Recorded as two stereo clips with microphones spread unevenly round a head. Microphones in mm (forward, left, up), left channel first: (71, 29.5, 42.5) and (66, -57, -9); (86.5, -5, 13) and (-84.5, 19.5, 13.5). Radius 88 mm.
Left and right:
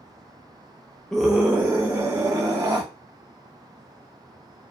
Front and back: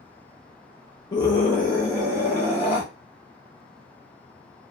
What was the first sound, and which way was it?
A scream, 55° right.